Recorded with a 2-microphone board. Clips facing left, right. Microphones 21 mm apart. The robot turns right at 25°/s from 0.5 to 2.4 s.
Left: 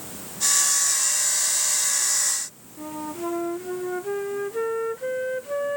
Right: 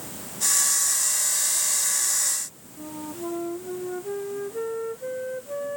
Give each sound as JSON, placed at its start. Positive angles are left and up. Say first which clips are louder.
{"t": 2.8, "sound": "a flute", "louder": "left 3 dB", "side_deg": 40}